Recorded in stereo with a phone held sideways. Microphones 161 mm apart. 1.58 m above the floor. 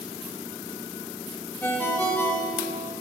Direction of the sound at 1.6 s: 10° left (ahead or behind).